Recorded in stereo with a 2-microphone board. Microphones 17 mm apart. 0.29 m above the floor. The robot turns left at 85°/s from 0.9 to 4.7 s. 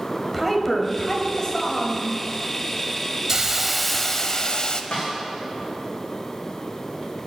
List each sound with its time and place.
0.3 s a woman speaking: 170° left, 1.4 m; by 2.0 s 75° left, 1.4 m
3.3 s a hiss: 130° right, 0.5 m; by 4.8 s 110° left, 0.5 m
4.9 s a snare drum: 60° left (ahead or behind), 3.5 m